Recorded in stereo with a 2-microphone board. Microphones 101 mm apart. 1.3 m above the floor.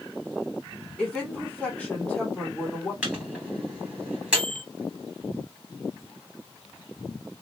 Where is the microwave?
10° right (ahead or behind), 2.5 m.